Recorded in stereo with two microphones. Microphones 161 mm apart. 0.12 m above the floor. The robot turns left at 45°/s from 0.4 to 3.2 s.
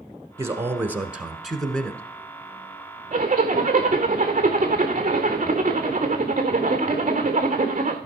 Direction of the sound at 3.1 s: 45° right (ahead or behind).